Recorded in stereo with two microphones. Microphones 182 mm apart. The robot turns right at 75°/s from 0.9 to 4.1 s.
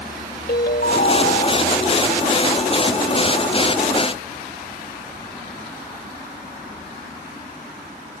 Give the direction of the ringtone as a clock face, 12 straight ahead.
9 o'clock.